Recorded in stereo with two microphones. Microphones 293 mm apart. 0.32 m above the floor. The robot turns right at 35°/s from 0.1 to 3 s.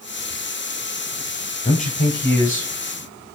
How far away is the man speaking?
About 1.4 m.